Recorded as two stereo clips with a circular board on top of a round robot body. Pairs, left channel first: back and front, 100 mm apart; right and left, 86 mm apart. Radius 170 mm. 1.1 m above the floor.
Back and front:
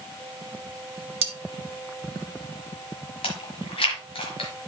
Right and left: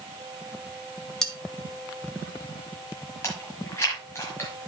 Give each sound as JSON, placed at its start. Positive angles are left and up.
{"t": 1.2, "sound": "cutlery clinking", "azimuth_deg": -5, "distance_m": 1.0}
{"t": 3.2, "sound": "chewing", "azimuth_deg": -155, "distance_m": 1.3}